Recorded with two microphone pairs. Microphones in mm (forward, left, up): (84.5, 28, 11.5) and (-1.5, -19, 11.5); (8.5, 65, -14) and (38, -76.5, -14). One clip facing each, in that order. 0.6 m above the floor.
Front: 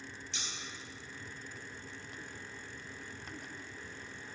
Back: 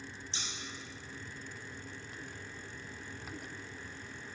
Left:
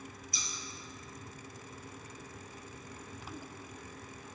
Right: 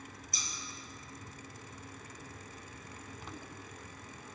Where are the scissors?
100° right, 0.5 m.